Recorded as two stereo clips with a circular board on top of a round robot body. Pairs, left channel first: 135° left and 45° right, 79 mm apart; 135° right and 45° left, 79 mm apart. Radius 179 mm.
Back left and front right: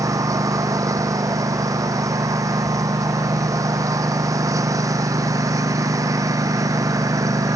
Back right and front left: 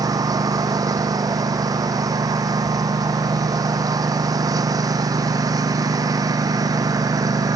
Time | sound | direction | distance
0.0 | a lawn mower | straight ahead | ?